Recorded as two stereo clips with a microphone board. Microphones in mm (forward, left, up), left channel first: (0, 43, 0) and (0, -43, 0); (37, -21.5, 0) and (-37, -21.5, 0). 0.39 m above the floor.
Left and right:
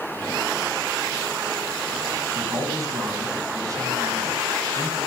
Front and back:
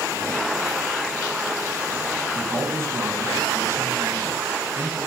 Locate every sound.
2.3 s a man speaking: 130° right, 3 m